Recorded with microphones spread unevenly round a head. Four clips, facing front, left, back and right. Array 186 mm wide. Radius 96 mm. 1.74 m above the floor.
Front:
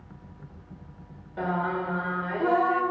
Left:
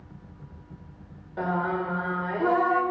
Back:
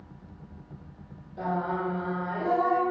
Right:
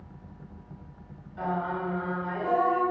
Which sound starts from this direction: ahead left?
Singing, at 1.4 s.